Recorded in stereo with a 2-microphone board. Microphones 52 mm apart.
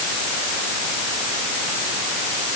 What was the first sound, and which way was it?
Only background noise.